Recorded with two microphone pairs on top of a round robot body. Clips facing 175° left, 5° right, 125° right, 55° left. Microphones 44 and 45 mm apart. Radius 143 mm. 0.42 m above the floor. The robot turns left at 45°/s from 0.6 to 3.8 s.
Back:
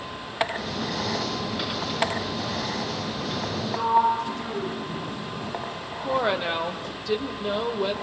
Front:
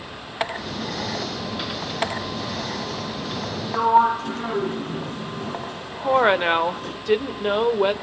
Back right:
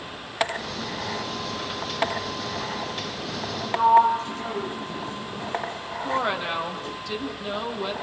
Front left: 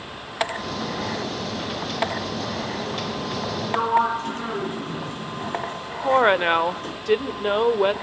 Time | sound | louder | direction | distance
3.7 | a sliding door | front 4 dB, back right 4 dB | 20° left | 3.5 m
6.0 | a woman speaking | front 7 dB, front left 9 dB | 25° left | 1.7 m